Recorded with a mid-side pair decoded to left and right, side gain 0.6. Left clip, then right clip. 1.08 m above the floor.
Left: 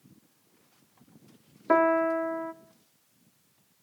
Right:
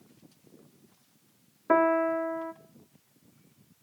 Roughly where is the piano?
Ahead.